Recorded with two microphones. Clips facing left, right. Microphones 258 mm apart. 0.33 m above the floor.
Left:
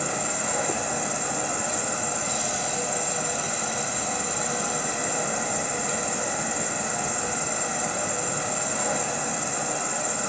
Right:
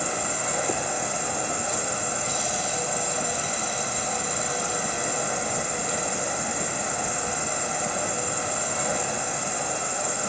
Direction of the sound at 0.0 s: 65° left (ahead or behind).